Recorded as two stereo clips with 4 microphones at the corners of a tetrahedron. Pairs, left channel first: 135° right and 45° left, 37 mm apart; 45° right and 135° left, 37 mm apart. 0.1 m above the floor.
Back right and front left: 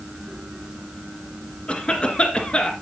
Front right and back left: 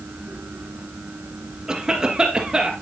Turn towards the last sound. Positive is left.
turn(degrees=-165)